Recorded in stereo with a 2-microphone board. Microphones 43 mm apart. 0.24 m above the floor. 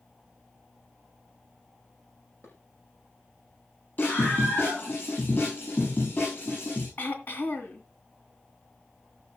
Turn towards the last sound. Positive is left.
turn(degrees=55)  # may be behind; listen again after turning